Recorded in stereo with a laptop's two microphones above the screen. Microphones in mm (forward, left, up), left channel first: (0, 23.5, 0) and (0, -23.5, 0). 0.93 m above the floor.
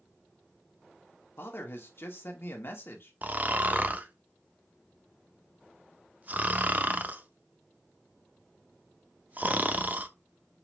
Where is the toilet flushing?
No toilet flushing in this recording.